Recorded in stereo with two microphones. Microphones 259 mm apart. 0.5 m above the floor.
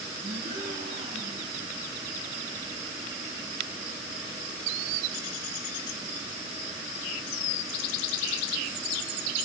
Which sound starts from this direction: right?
A gasp, at 0.2 s.